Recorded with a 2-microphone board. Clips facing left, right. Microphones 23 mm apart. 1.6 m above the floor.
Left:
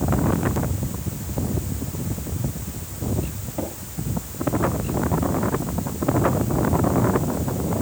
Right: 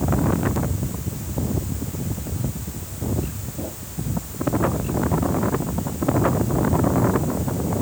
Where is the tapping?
80° left, 6.5 m.